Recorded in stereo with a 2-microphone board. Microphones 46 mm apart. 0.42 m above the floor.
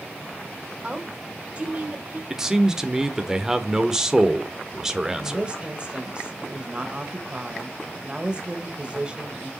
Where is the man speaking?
10° right (ahead or behind), 1.0 m.